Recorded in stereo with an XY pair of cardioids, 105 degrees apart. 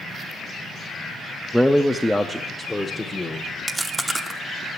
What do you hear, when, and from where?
1.5 s a man speaking: straight ahead, 0.5 m; by 3.5 s 15° left, 1.5 m
3.7 s chewing: 15° right, 0.9 m